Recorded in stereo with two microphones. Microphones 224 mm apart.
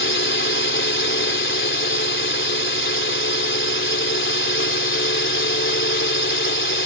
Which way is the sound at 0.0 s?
60° left (ahead or behind).